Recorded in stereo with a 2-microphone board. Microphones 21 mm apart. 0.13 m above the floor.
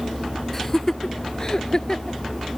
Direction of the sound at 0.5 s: 15° left (ahead or behind).